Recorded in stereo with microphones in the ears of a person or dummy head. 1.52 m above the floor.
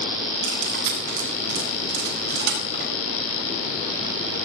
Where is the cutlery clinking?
55° right (ahead or behind), 5 m.